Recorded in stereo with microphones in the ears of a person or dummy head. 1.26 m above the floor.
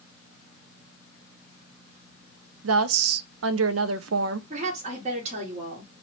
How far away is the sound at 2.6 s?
About 0.5 m.